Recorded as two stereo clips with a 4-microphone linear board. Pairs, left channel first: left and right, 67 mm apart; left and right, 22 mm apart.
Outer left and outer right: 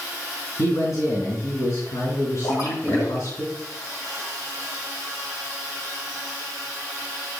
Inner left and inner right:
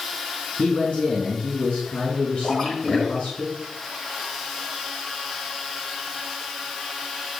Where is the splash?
55° left (ahead or behind), 3.5 m.